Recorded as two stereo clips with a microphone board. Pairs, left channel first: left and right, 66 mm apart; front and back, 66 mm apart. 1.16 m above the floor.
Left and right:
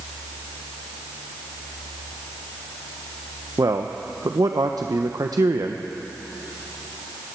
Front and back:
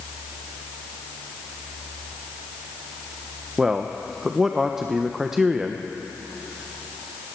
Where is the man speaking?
95° right, 0.7 m.